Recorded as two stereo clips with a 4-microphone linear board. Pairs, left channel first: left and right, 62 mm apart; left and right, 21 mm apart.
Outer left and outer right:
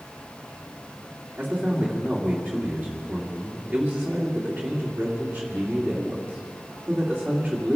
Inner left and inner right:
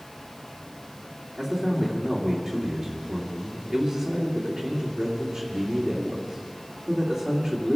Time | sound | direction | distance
1.4 | a man speaking | 10° right (ahead or behind) | 2.5 m